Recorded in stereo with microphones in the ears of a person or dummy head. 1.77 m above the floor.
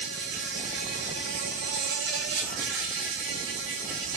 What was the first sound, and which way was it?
An insect, 75° right (ahead or behind).